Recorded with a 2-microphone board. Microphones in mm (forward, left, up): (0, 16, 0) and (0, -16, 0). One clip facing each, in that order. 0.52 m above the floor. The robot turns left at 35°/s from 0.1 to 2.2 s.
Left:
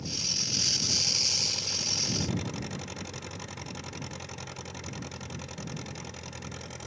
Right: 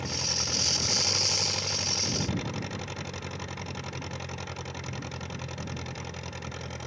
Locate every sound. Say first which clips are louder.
0.0 s an engine running: right 2 dB; 95° right; by 6.9 s 165° right